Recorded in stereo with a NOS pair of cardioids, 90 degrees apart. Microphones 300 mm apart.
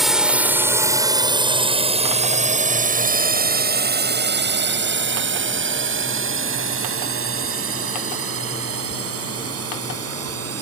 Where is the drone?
Straight ahead; by 10.6 s 50° right.